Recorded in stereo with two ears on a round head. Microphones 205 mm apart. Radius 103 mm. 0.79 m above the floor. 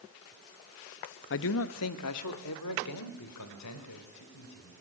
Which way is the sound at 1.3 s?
50° left (ahead or behind).